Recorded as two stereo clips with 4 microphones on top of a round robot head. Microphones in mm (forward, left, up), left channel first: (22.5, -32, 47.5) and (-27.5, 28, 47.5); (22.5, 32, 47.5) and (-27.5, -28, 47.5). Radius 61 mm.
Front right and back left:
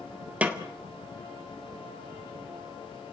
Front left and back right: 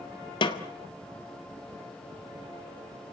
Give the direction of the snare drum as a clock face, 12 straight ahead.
10 o'clock.